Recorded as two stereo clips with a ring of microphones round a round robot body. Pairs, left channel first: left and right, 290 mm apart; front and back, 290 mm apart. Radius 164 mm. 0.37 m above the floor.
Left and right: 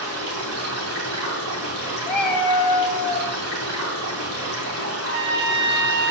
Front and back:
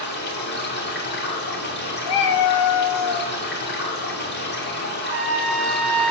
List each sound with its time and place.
0.0 s running water: 50° right, 2.5 m
2.1 s a cat meowing: 5° left, 1.2 m
5.0 s a trumpet: 140° right, 2.5 m